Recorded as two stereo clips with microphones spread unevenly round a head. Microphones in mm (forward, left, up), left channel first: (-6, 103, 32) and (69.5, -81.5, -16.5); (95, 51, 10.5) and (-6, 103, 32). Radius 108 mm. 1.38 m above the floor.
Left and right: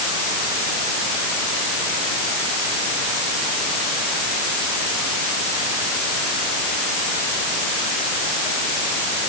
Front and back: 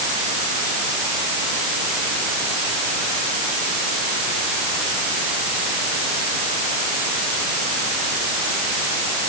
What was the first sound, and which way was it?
Only background noise.